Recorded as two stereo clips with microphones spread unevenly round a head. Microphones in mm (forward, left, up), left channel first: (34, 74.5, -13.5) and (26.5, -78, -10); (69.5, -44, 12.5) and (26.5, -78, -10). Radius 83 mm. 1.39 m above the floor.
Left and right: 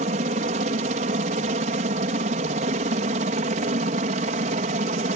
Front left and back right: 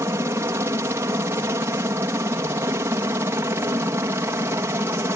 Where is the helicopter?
135° right.